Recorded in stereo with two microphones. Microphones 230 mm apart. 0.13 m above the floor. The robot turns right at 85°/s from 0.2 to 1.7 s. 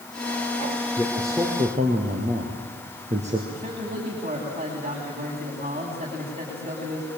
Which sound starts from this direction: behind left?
A man speaking, at 1.0 s.